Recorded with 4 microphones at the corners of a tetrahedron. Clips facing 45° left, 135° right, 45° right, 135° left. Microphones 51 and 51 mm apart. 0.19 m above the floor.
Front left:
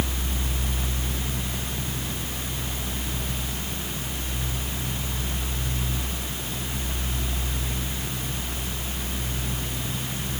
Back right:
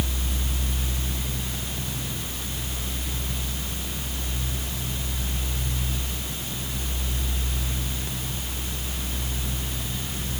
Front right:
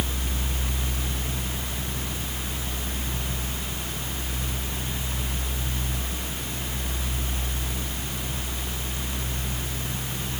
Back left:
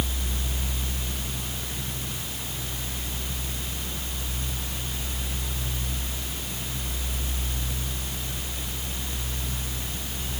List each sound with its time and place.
Only background noise.